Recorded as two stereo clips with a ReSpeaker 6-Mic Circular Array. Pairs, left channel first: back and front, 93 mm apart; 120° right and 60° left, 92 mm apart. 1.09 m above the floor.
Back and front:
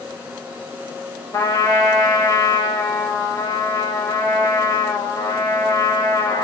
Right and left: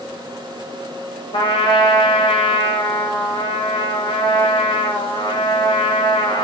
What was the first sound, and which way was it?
A trumpet, 130° right.